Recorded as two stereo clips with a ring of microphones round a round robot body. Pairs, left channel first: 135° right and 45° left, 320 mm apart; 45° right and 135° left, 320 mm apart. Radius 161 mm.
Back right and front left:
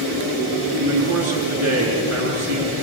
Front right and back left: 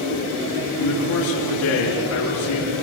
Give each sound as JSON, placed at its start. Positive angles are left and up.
{"t": 0.8, "sound": "a man speaking", "azimuth_deg": 0, "distance_m": 8.0}